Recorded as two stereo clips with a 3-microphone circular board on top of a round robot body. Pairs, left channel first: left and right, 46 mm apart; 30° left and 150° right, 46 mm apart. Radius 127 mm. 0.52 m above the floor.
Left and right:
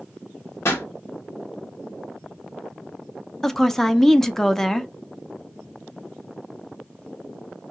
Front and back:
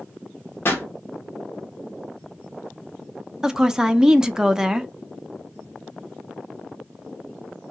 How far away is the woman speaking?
About 0.6 m.